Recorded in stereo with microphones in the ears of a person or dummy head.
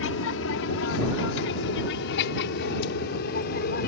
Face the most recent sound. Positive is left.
turn(degrees=50)  # may be behind; listen again after turning